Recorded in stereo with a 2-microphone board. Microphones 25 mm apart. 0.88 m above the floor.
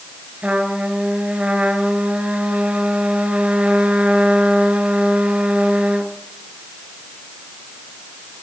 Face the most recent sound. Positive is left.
turn(degrees=-55)  # may be behind; listen again after turning